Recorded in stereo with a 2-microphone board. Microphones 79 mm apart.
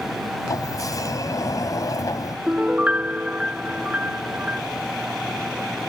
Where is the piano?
20° right (ahead or behind).